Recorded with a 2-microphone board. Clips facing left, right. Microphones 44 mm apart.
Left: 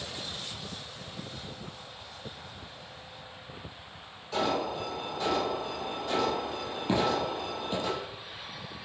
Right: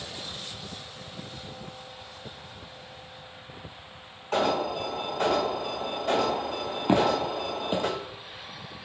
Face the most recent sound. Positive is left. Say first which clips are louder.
# right 4 dB
turn(degrees=-35)  # may be behind; listen again after turning